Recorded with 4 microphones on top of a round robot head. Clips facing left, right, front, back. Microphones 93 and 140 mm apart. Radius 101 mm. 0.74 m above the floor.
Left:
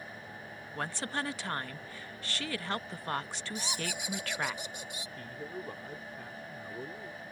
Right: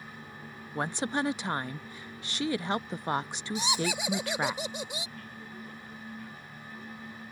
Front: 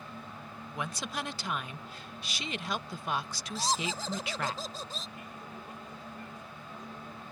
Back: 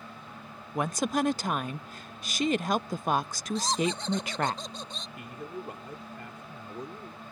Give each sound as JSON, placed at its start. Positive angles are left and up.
{"t": 0.8, "sound": "a woman speaking", "azimuth_deg": -155}
{"t": 3.5, "sound": "laughter", "azimuth_deg": -85}
{"t": 5.2, "sound": "a man speaking", "azimuth_deg": 150}